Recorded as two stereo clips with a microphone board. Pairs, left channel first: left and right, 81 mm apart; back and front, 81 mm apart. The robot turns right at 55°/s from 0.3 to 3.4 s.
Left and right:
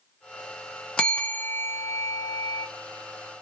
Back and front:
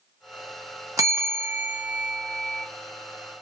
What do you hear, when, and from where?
1.0 s a bell: 20° left, 0.5 m; by 2.7 s 115° left, 0.5 m